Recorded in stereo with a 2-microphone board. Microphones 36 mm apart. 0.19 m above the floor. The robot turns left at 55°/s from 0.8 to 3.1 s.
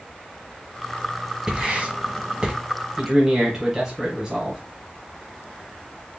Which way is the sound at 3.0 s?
20° right (ahead or behind).